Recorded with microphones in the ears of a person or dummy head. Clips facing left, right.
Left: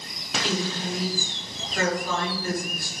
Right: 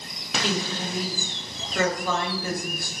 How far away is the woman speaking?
About 1.6 m.